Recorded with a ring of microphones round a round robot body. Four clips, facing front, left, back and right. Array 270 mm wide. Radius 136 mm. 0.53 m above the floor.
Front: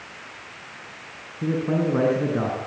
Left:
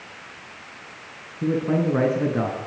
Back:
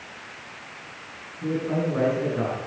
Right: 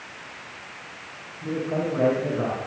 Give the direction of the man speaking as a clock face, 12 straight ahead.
10 o'clock.